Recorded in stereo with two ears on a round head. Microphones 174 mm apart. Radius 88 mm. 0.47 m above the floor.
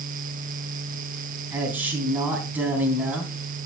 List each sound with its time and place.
1.5 s a man speaking: 10° right (ahead or behind), 3.5 m